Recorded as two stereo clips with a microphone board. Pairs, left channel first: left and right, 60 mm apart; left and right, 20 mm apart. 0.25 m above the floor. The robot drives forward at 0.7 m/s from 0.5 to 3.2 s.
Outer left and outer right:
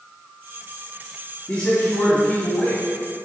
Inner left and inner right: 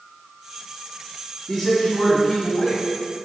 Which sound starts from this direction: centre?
A man speaking, at 1.5 s.